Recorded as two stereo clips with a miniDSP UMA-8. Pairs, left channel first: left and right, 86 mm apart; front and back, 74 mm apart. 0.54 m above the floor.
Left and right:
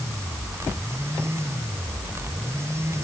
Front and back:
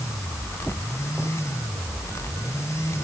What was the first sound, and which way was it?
Only background noise.